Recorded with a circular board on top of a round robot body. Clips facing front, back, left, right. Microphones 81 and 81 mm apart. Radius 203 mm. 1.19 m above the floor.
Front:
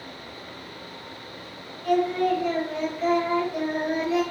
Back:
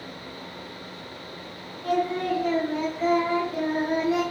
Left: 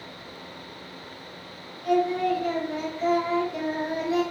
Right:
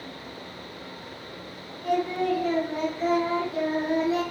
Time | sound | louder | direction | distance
1.8 | singing | front 3 dB, left 2 dB | 150° right | 1.1 m